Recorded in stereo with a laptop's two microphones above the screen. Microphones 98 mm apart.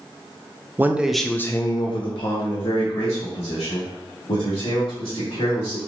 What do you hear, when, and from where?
0.8 s a man speaking: 25° right (ahead or behind), 0.6 m; by 5.8 s 85° left, 3 m